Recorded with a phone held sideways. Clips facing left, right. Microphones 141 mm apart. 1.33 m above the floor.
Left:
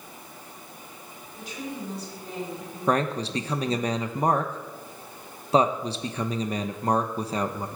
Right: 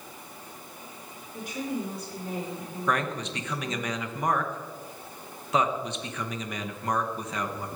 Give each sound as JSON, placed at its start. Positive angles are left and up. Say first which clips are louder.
{"t": 1.3, "sound": "a woman speaking", "louder": "right 4 dB", "side_deg": -55, "distance_m": 5.5}
{"t": 2.9, "sound": "a man speaking", "louder": "left 5 dB", "side_deg": 35, "distance_m": 0.9}